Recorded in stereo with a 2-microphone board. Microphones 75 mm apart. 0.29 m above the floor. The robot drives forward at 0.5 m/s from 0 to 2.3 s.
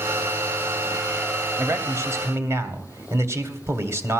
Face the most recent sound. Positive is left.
turn(degrees=-40)  # may be behind; listen again after turning